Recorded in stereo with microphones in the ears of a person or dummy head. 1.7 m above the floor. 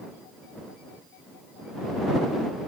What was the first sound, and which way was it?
Only background noise.